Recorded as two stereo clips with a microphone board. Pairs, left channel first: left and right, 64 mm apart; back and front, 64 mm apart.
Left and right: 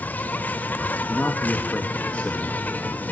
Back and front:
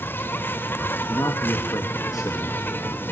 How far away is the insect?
About 1.2 m.